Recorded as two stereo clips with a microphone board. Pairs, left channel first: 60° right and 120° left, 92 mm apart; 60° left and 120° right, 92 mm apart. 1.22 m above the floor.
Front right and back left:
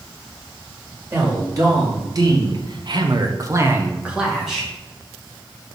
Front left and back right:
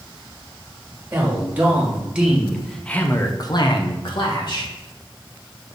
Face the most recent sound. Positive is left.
turn(degrees=30)